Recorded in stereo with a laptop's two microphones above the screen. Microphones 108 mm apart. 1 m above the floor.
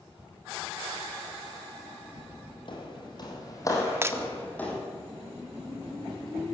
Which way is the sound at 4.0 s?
25° right (ahead or behind).